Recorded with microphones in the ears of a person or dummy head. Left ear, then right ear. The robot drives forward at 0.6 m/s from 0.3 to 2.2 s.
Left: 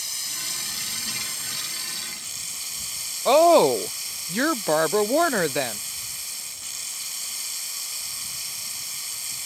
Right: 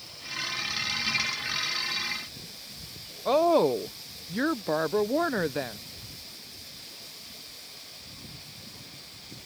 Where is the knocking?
No knocking in this recording.